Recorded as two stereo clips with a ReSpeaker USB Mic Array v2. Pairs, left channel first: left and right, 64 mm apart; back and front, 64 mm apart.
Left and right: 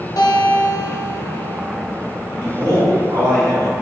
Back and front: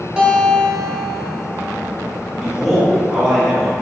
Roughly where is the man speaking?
Right.